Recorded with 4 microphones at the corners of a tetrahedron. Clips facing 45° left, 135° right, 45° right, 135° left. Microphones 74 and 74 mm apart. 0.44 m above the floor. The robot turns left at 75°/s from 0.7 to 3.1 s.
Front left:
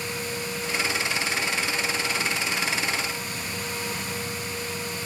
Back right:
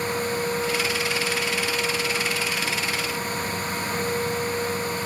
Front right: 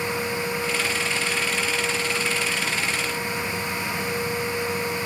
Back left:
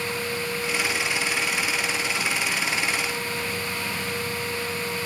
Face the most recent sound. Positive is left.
No sound to turn to.